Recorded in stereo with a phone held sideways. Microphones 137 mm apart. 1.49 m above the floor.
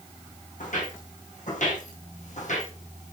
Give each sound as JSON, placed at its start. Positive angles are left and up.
{"t": 0.6, "sound": "footsteps", "side_deg": 75, "distance_m": 5.5}